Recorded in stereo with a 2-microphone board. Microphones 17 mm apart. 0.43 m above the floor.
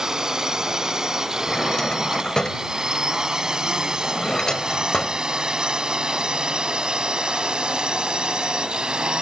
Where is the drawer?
45° left (ahead or behind).